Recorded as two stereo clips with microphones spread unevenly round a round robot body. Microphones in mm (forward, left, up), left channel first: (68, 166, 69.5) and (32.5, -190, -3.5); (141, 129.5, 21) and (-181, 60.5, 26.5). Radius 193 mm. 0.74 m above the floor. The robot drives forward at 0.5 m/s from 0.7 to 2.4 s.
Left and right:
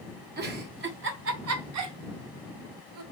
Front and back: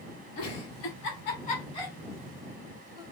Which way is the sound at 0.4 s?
40° right.